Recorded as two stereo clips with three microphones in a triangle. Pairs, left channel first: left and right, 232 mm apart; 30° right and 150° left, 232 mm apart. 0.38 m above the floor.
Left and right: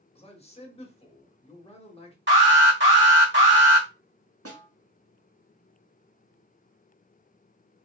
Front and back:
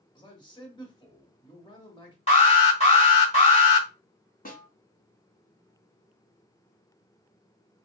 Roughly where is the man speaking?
Ahead left.